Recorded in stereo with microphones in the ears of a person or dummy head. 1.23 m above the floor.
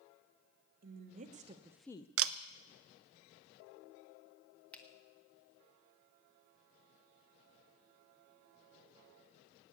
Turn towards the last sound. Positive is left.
turn(degrees=10)  # may be behind; listen again after turning